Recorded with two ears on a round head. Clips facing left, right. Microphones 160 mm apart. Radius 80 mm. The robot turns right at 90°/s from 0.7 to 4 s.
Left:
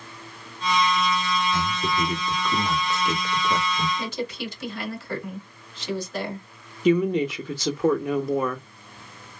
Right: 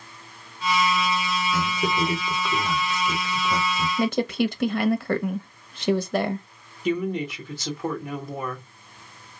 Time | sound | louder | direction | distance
1.5 | a man speaking | right 1 dB | 80° right | 1.7 m
4.0 | a woman speaking | right 8 dB | 45° right (ahead or behind) | 0.7 m
6.8 | a woman speaking | left 5 dB | 60° left (ahead or behind) | 1.2 m